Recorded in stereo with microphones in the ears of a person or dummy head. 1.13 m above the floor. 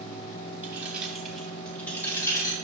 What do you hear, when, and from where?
0.6 s keys jangling: 15° right (ahead or behind), 2.0 m; by 2.5 s 15° left (ahead or behind), 2.5 m